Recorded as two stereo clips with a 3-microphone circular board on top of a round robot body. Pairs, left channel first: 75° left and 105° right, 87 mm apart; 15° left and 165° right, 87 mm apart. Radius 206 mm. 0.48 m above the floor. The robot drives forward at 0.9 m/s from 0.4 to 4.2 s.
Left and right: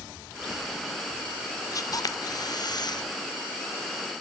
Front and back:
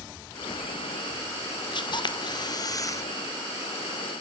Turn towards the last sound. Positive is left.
turn(degrees=105)